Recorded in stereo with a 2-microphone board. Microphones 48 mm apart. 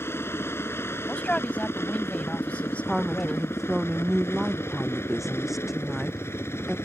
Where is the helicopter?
55° left (ahead or behind); by 6.9 s 60° left (ahead or behind).